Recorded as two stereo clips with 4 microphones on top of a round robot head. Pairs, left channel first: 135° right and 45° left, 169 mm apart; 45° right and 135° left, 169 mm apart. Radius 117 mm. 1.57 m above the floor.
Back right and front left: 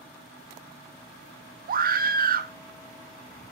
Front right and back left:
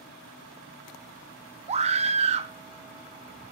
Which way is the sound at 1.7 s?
80° left.